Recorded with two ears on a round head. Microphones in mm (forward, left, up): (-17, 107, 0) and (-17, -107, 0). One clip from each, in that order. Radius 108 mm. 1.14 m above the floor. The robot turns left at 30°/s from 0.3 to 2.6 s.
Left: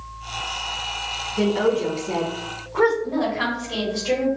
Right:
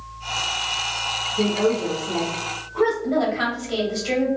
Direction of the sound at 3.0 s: 55° right (ahead or behind).